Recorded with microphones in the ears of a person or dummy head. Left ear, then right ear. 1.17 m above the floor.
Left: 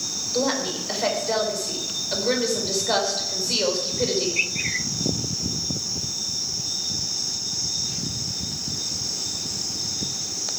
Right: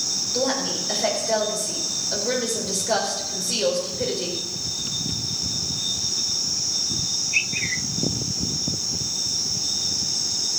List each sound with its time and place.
0.3 s a woman speaking: 20° left (ahead or behind), 4 m